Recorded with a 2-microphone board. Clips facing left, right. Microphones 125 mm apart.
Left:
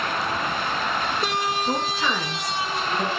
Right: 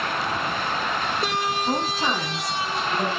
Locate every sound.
1.6 s a woman speaking: 45° right (ahead or behind), 5 m; by 3.1 s 25° right (ahead or behind), 5 m